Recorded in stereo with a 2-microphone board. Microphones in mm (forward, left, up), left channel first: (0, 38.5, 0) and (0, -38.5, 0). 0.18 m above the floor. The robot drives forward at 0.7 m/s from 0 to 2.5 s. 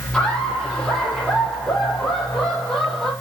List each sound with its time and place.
0.1 s laughter: 5° left (ahead or behind), 3.5 m